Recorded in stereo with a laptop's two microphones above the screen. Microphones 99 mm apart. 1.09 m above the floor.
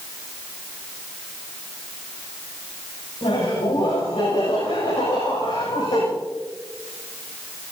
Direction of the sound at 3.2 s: 70° left (ahead or behind).